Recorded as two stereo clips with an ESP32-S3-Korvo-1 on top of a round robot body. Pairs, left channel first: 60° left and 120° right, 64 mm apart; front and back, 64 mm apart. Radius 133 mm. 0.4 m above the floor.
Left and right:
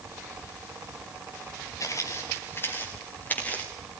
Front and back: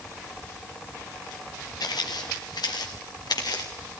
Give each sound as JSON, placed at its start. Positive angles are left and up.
{"t": 1.8, "sound": "footsteps", "azimuth_deg": 20, "distance_m": 2.5}